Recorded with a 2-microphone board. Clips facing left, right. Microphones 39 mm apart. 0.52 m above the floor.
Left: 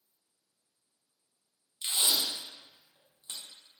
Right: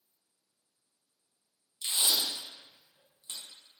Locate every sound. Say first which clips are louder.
1.8 s tape being pulled: even; 20° left (ahead or behind), 0.7 m